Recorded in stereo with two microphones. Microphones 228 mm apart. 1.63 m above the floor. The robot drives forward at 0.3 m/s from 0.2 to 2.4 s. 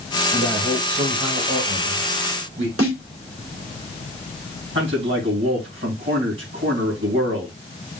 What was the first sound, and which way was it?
A man speaking, 50° right (ahead or behind).